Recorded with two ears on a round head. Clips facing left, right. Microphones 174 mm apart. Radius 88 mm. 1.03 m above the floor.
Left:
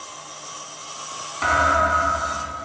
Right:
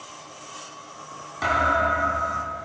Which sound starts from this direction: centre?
A thud, at 1.4 s.